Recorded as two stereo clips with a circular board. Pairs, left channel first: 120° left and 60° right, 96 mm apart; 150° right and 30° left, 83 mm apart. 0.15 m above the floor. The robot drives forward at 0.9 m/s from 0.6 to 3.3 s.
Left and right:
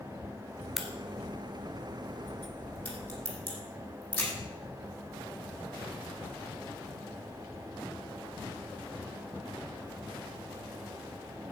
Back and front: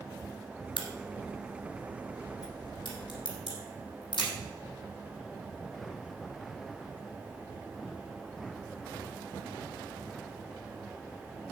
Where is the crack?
145° right, 1.3 m; by 4.3 s 170° right, 3.5 m.